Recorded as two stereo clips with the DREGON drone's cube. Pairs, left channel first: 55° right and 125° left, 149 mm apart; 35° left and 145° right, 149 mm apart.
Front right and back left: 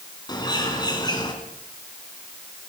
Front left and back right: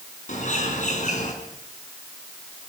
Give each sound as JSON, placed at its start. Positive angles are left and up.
{"t": 0.3, "sound": "a bird", "azimuth_deg": 5, "distance_m": 5.5}